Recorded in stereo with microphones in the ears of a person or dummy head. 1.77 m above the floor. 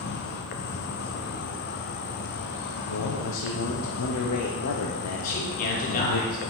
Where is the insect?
45° left (ahead or behind), 0.8 m.